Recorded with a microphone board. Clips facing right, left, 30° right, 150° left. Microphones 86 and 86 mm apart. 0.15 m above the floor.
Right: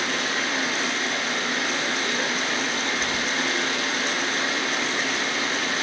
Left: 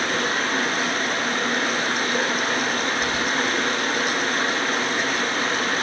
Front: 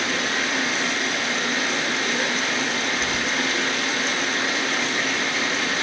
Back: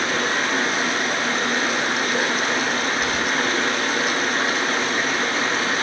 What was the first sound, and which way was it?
Running water, 120° left.